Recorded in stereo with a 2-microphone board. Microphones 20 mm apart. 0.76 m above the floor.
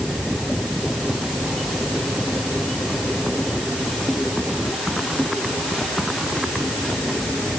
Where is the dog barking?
I don't hear a dog barking.